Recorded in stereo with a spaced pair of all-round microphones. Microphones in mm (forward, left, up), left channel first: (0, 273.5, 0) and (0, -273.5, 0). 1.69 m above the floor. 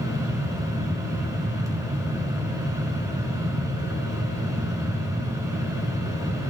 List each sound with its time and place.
0.0 s a fan: 5° right (ahead or behind), 1.3 m